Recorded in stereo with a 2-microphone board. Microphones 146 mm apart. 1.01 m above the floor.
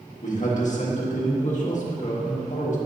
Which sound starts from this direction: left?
A man speaking, at 0.2 s.